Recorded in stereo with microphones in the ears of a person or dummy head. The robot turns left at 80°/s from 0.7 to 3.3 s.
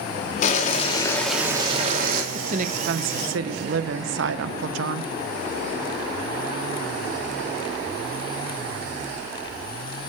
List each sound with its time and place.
0.4 s boiling: 50° left, 2 m; by 2.2 s 70° right, 2 m
2.3 s a woman speaking: 25° right, 0.8 m; by 5.1 s 100° right, 0.8 m